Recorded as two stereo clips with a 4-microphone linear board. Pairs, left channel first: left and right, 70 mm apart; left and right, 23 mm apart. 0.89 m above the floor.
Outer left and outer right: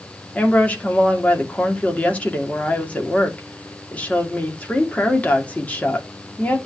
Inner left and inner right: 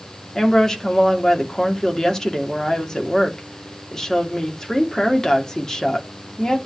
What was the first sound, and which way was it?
A woman speaking, 20° left (ahead or behind).